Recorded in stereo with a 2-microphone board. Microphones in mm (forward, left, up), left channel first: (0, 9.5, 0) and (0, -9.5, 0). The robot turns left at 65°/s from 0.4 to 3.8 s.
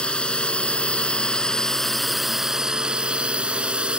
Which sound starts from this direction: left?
A drone, at 0.0 s.